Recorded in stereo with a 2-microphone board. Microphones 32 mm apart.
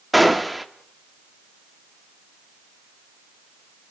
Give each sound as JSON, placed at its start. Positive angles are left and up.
{"t": 0.1, "sound": "a gunshot", "side_deg": -5, "distance_m": 1.5}